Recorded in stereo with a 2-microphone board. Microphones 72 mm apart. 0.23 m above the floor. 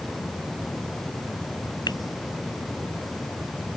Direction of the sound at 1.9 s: 75° left (ahead or behind).